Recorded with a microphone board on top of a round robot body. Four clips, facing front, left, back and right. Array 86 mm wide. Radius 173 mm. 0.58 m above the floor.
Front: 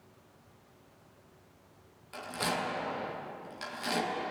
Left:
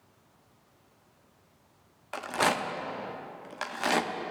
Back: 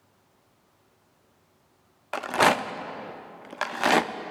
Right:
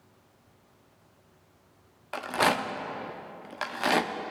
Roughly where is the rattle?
Behind.